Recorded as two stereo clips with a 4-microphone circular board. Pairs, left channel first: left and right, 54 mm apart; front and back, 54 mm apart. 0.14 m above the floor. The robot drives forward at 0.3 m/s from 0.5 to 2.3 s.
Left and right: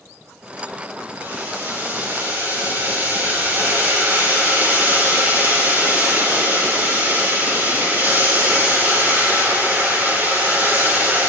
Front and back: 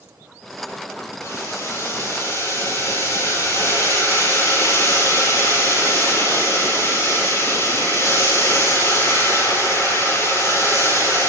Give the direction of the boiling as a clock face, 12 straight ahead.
1 o'clock.